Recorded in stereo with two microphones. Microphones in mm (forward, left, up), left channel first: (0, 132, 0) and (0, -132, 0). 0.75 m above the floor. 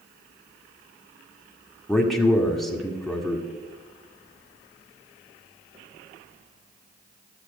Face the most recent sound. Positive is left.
turn(degrees=0)  # may be behind; listen again after turning